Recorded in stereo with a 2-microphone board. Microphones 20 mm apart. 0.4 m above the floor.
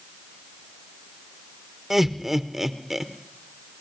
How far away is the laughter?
About 0.8 m.